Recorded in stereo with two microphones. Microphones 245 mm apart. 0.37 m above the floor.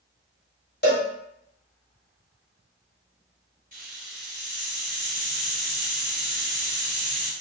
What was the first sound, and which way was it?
A cowbell, 45° left (ahead or behind).